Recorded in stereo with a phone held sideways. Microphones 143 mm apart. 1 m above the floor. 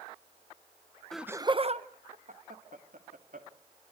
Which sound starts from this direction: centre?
Laughter, at 1.1 s.